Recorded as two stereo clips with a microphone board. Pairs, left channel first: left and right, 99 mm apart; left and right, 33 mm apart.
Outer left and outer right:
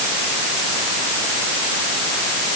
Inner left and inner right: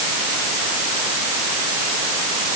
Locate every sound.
Only background noise.